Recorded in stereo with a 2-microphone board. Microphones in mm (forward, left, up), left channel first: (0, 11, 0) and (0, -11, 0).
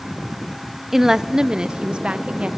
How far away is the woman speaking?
About 0.5 m.